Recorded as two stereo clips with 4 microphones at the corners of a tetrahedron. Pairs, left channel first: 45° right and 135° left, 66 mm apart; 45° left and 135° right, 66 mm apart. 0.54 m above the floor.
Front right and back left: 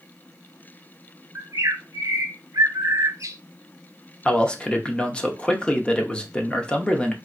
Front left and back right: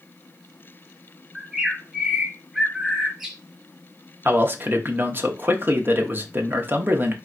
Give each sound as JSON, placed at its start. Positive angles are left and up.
{"t": 1.4, "sound": "a bird", "azimuth_deg": 140, "distance_m": 0.7}
{"t": 4.2, "sound": "a man speaking", "azimuth_deg": -105, "distance_m": 0.7}